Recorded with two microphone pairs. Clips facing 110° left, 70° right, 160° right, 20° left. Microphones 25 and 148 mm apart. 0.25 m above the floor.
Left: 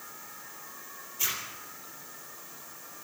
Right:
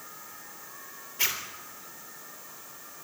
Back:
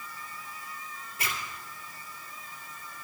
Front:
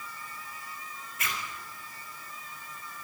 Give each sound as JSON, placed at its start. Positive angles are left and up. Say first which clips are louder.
{"t": 1.2, "sound": "a zipper", "louder": "right 4 dB, even", "azimuth_deg": -100, "distance_m": 3.0}